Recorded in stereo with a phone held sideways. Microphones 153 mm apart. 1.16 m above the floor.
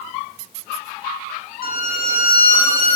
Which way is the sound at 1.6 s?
65° left (ahead or behind).